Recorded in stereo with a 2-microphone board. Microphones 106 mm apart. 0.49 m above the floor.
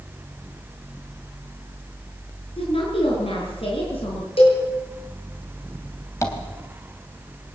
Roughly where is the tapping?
Left.